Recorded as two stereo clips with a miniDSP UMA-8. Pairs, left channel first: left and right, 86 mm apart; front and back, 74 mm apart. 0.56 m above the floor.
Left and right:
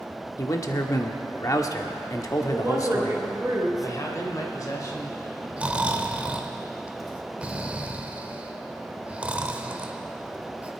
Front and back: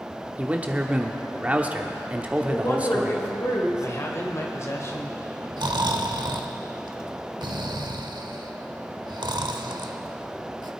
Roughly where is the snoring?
Behind.